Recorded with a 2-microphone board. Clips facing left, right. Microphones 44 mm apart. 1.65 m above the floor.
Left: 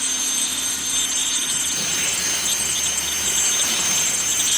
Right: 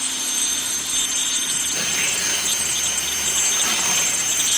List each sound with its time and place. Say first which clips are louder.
1.7 s tearing paper: right 4 dB; 75° right (ahead or behind), 2 m